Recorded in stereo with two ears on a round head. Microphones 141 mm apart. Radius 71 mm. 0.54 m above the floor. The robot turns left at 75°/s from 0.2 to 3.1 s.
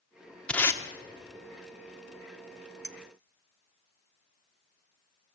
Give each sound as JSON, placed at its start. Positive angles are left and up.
{"t": 0.5, "sound": "tape being pulled", "side_deg": 5, "distance_m": 1.0}
{"t": 2.8, "sound": "a clink", "side_deg": -15, "distance_m": 1.1}